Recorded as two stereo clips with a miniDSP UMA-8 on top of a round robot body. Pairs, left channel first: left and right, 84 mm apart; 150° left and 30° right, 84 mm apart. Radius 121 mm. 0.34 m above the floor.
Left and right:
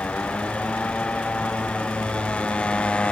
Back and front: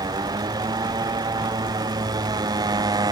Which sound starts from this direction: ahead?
A motorcycle, at 0.0 s.